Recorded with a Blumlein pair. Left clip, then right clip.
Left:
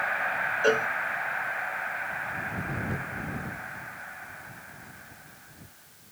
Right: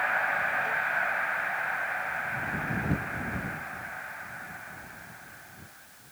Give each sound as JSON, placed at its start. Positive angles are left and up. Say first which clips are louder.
{"t": 0.6, "sound": "a cowbell", "louder": "left 5 dB", "azimuth_deg": 50}